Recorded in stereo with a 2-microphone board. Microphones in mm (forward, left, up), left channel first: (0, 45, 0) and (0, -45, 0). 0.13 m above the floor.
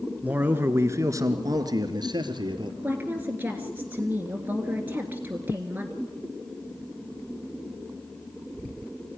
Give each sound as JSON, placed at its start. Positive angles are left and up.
{"t": 0.2, "sound": "a man speaking", "side_deg": -15, "distance_m": 1.6}
{"t": 2.8, "sound": "a woman speaking", "side_deg": -20, "distance_m": 1.9}